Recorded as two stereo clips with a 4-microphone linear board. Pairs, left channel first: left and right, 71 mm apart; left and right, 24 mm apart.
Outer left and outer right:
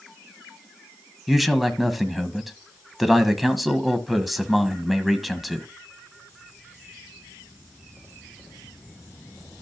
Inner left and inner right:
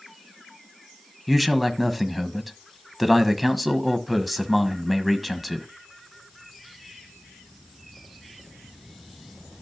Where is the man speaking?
Centre (ahead or behind), 1.0 m.